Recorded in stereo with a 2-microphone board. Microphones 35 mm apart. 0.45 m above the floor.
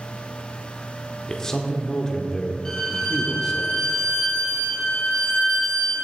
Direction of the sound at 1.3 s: 20° left (ahead or behind).